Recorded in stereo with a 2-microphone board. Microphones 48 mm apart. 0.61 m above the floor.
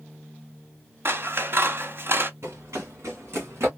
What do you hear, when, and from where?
1.1 s scissors: 50° right (ahead or behind), 0.6 m
2.4 s running footsteps: 70° right (ahead or behind), 2 m